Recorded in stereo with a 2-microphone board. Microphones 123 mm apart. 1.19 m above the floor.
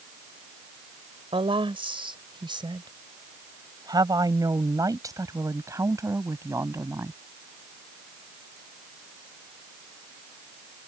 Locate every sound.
1.3 s a woman speaking: 45° right (ahead or behind); by 7.2 s 20° right (ahead or behind)